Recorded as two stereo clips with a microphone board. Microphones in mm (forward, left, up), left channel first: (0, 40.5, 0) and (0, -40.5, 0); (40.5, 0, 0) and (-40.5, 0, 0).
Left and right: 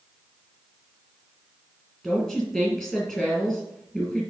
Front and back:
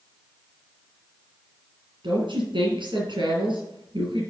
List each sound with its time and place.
2.0 s a woman speaking: 170° left, 4 m